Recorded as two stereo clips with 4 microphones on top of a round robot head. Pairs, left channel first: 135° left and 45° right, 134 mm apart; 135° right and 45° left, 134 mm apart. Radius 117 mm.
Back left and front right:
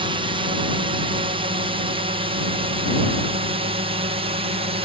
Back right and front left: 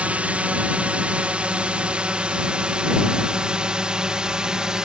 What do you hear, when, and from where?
0.0 s a drone: 30° right; by 4.8 s 40° right